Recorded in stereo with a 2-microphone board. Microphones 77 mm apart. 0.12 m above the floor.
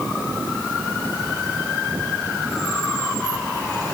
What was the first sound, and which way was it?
Only background noise.